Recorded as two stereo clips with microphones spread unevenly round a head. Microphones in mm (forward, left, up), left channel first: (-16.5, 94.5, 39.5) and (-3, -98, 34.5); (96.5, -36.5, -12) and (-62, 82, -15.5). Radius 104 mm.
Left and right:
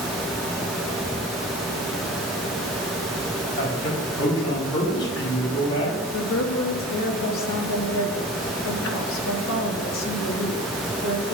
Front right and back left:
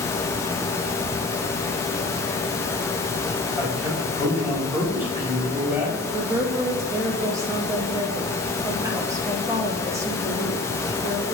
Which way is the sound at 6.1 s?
70° left.